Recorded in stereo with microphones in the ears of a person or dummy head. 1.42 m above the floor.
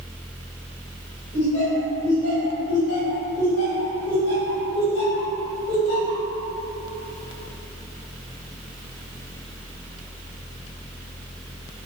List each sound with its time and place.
1.3 s laughter: 75° left (ahead or behind), 1.5 m